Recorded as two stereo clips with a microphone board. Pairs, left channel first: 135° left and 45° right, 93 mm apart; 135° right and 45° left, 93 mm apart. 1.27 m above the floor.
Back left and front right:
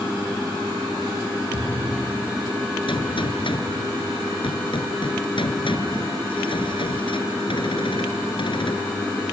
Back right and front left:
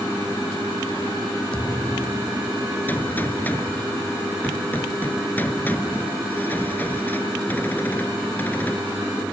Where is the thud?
60° right.